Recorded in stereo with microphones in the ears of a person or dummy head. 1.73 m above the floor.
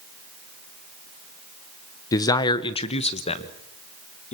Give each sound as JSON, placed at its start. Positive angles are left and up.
{"t": 2.1, "sound": "a man speaking", "side_deg": 15, "distance_m": 0.8}